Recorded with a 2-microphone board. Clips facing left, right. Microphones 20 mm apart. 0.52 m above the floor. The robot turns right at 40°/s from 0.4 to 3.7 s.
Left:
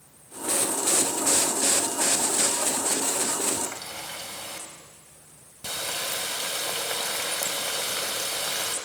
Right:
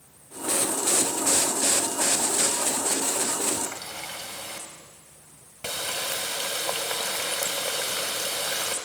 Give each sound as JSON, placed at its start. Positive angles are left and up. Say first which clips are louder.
{"t": 3.6, "sound": "a running tap", "louder": "even", "side_deg": -65, "distance_m": 2.0}